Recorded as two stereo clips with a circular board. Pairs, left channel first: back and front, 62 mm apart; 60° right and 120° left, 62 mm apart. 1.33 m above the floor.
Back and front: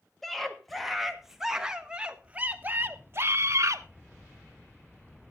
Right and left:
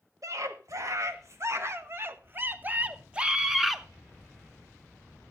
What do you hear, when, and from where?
0.2 s a scream: 95° left, 2.0 m; by 3.9 s 30° left, 1.1 m